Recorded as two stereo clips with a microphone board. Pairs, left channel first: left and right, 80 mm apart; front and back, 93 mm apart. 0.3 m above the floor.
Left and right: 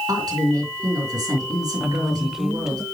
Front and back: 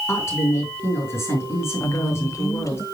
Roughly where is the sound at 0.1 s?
Ahead right.